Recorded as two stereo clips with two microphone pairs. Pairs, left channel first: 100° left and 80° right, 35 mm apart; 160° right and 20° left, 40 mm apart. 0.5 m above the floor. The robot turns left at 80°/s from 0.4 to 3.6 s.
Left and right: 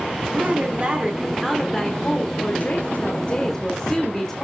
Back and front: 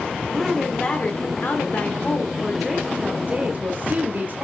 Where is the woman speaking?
80° right, 1.6 m; by 4.5 s 25° left, 1.6 m.